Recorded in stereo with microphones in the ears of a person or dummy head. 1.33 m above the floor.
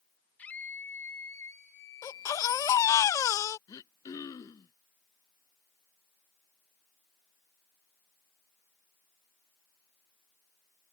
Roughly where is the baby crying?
Centre.